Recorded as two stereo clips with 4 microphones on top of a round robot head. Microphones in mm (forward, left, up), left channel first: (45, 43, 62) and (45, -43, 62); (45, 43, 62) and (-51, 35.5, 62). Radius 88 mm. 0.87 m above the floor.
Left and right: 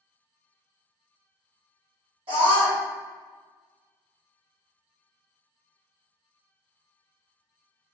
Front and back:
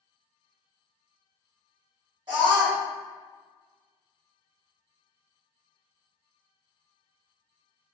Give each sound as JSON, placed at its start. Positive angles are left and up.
{"t": 2.3, "sound": "a scream", "azimuth_deg": -125, "distance_m": 1.9}